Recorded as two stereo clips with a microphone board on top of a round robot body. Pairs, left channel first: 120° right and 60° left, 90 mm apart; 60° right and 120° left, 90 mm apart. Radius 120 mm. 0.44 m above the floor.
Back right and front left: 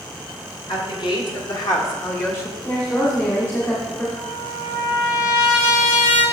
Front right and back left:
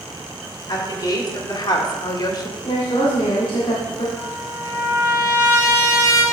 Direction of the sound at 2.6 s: 60° right.